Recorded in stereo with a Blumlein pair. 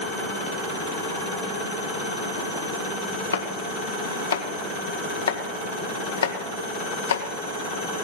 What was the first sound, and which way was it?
Chopping, 65° left.